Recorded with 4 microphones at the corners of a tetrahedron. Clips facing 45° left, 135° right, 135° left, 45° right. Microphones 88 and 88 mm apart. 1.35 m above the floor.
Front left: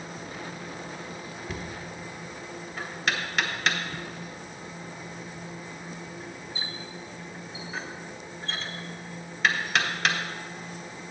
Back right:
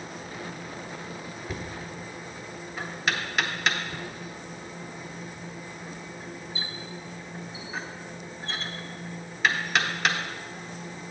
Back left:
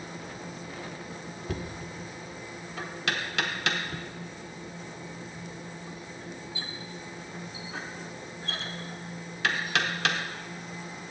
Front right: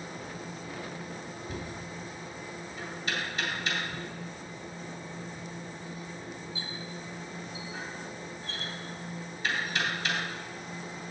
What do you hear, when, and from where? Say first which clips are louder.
1.5 s knocking: back right 1 dB, back left 5 dB; 135° left, 1.0 m